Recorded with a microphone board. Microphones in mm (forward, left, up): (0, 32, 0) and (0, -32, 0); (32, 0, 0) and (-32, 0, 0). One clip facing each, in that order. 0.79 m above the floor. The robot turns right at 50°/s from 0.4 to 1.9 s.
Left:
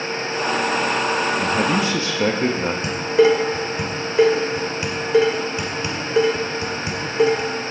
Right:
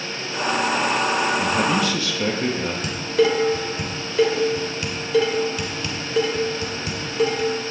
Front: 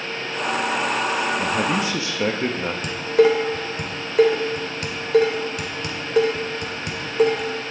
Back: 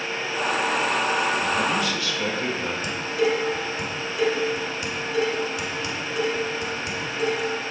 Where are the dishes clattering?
25° left, 2 m.